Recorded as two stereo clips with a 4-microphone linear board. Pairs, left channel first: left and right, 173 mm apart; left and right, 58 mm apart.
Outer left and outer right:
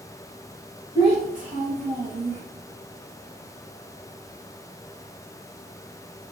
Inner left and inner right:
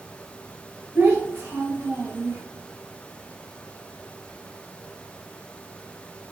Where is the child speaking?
30° right (ahead or behind), 0.9 m; by 2.4 s 50° right (ahead or behind), 1.3 m.